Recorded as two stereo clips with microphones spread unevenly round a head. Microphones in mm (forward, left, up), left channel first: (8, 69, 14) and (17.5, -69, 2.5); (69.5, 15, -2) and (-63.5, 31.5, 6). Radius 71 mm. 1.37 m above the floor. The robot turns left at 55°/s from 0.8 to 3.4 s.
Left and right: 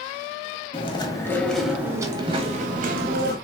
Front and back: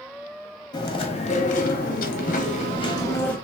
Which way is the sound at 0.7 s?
50° left.